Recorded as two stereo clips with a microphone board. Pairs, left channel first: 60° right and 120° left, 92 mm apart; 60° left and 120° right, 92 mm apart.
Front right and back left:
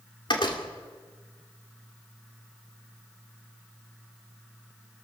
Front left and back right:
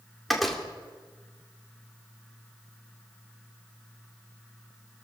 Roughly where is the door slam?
Ahead right.